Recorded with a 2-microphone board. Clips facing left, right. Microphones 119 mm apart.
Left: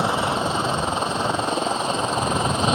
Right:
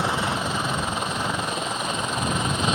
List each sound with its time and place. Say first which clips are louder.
0.0 s a helicopter: left 3 dB; 25° left (ahead or behind); by 2.8 s 30° left (ahead or behind)